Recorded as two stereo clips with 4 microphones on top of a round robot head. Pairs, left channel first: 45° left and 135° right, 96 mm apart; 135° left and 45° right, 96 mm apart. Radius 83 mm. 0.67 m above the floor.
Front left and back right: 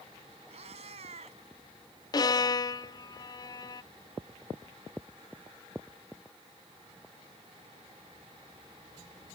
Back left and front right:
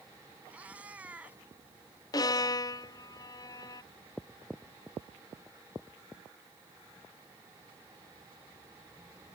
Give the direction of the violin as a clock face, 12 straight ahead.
9 o'clock.